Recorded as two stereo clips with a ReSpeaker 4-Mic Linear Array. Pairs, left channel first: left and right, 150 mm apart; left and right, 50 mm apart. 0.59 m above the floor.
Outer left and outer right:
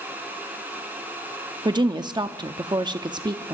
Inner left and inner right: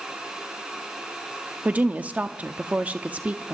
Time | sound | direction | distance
1.6 | a woman speaking | 25° right (ahead or behind) | 0.7 m